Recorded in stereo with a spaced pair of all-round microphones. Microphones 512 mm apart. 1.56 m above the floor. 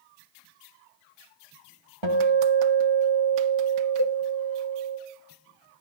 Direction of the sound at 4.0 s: 30° left (ahead or behind).